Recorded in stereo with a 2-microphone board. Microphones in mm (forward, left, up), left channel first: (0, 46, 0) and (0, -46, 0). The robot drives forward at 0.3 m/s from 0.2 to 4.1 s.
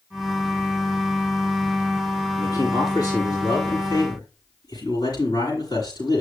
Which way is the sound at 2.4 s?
45° left (ahead or behind).